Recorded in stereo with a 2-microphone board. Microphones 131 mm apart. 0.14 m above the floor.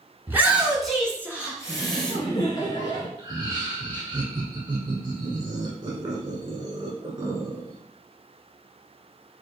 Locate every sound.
0.3 s a shout: 20° right (ahead or behind), 1.7 m; by 2.1 s 35° left (ahead or behind), 1.9 m
1.7 s laughter: 30° left (ahead or behind), 2.5 m
3.2 s laughter: 35° right (ahead or behind), 1.2 m